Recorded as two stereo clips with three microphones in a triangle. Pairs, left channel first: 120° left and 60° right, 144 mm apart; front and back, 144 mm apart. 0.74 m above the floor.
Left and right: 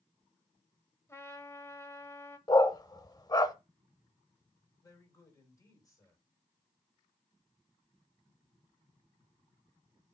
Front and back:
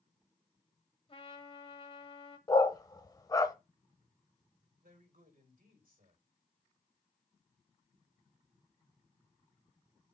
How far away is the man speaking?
About 4 m.